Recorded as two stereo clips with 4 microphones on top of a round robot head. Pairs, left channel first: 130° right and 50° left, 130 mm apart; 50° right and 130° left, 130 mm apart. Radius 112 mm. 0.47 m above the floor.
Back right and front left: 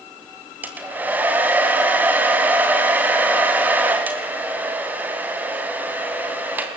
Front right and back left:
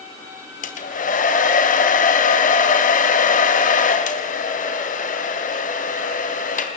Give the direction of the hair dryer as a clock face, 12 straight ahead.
1 o'clock.